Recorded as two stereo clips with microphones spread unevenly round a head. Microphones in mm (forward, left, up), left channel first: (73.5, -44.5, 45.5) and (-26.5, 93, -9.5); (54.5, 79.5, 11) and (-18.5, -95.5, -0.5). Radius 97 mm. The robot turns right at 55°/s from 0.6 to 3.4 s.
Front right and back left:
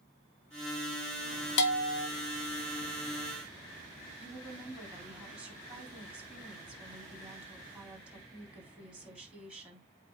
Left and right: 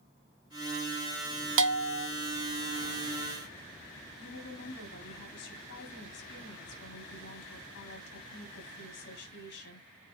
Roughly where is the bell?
Right.